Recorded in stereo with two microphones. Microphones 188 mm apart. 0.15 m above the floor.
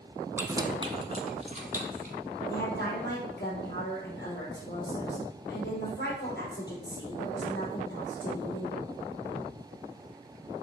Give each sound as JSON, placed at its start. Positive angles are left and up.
{"t": 0.4, "sound": "keys jangling", "side_deg": -10, "distance_m": 0.8}
{"t": 2.5, "sound": "a woman speaking", "side_deg": 65, "distance_m": 3.0}